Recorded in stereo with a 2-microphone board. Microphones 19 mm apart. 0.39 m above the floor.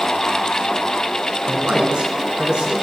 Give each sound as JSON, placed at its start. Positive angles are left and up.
{"t": 1.5, "sound": "a man speaking", "side_deg": -65, "distance_m": 4.0}